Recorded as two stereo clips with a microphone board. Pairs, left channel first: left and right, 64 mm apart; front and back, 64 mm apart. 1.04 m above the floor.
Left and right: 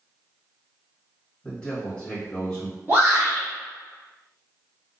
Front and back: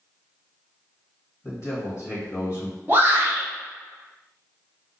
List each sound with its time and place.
1.4 s a man speaking: 20° left, 1.4 m
2.9 s a shout: 140° right, 0.9 m